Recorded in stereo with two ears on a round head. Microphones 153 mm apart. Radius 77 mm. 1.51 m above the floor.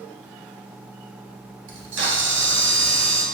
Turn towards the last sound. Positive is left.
turn(degrees=-75)  # may be behind; listen again after turning